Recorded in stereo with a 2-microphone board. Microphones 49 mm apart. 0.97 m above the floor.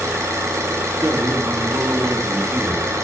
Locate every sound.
0.0 s an engine running: 90° right, 4 m
1.0 s a man speaking: 55° right (ahead or behind), 1.5 m